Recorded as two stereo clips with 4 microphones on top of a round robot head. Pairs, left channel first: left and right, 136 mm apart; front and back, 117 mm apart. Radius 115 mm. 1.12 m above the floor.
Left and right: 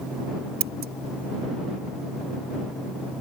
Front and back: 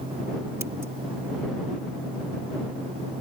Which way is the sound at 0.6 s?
105° right.